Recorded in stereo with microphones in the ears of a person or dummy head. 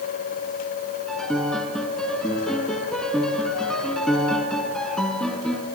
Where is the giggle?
I don't hear a giggle.